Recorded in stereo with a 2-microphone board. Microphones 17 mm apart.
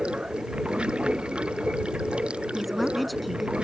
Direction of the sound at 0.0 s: 85° right.